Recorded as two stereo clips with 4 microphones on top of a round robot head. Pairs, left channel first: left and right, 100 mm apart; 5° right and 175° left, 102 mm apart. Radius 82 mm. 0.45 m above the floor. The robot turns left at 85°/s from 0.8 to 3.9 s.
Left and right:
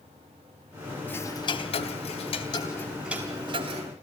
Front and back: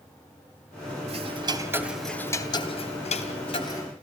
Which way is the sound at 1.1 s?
165° left.